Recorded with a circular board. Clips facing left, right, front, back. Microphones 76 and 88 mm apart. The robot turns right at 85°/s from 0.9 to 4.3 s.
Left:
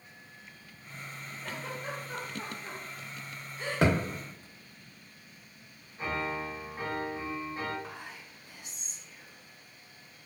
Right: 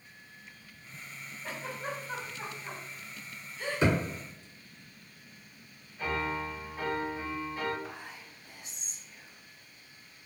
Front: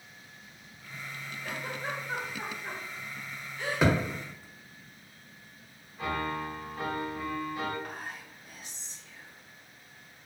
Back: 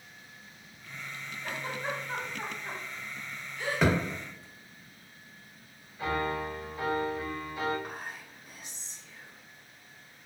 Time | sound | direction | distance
1.4 | a giggle | 135° right | 1.5 m
3.8 | a thud | 85° left | 0.8 m
6.0 | a piano | 35° left | 1.2 m
7.8 | whispering | 105° left | 1.3 m